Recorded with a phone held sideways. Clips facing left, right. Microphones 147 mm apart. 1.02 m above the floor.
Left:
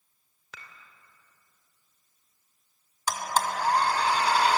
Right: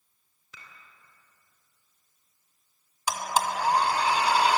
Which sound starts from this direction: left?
Dishes clattering, at 0.5 s.